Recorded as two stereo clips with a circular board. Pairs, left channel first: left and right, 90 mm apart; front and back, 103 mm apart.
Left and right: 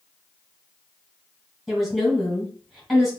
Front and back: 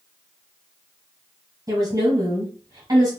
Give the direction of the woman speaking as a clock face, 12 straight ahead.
6 o'clock.